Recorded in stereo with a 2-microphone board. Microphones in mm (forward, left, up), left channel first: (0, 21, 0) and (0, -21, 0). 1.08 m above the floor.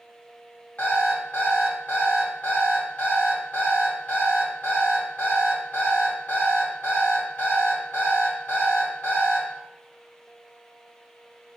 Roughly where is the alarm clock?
Left.